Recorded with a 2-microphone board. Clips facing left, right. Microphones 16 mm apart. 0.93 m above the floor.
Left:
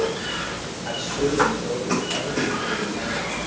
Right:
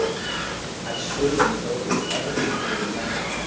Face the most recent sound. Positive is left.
turn(degrees=-35)  # may be behind; listen again after turning